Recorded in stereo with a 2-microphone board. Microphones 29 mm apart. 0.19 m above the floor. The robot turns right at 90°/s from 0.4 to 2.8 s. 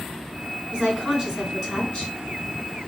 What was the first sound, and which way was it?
A woman speaking, 80° right.